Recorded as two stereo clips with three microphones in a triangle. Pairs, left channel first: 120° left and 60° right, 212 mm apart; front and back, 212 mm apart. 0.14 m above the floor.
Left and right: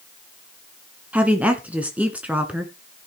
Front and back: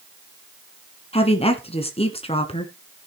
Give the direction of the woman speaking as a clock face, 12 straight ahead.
12 o'clock.